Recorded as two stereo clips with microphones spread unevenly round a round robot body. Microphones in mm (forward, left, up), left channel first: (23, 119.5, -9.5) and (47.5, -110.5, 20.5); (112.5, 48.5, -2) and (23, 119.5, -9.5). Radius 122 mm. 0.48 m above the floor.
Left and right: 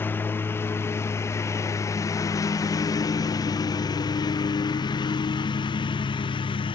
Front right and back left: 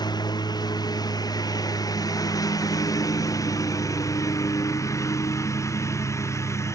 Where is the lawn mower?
15° left; by 6.8 s 25° left.